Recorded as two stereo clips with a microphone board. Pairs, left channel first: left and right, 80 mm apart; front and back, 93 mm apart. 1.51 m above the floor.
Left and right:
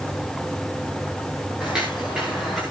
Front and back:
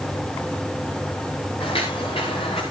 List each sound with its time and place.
1.6 s footsteps: 10° right, 9 m; by 2.6 s straight ahead, 8.5 m